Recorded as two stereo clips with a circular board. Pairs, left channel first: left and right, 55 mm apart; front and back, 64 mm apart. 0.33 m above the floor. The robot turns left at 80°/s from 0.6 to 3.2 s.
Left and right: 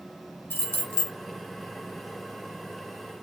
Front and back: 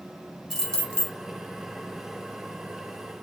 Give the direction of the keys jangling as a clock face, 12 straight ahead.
9 o'clock.